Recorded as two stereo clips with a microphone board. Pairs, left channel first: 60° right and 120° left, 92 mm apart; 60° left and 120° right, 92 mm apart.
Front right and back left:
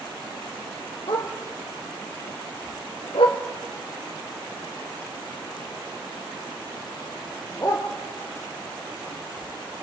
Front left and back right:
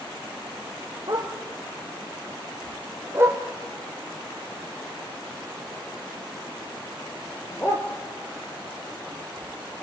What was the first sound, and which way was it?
A dog barking, 80° right.